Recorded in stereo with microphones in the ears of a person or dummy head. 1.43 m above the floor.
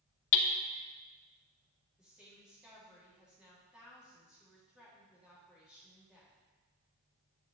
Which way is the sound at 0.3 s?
65° left (ahead or behind).